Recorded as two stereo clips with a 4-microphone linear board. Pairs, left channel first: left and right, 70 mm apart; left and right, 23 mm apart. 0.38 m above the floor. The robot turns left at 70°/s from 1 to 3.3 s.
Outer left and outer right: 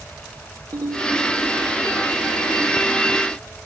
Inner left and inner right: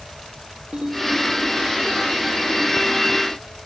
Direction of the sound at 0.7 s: 85° right.